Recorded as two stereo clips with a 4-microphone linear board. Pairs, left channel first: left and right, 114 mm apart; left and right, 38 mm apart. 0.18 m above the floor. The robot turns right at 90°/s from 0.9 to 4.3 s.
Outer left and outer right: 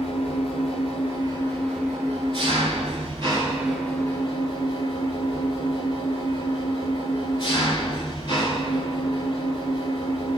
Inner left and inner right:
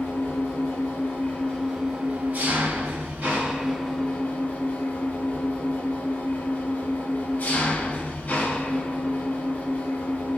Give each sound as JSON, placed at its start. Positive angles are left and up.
{"t": 0.0, "sound": "an engine running", "azimuth_deg": 105, "distance_m": 2.0}